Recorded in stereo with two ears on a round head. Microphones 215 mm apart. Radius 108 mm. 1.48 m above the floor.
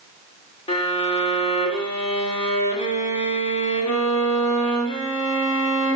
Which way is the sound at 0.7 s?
25° left (ahead or behind).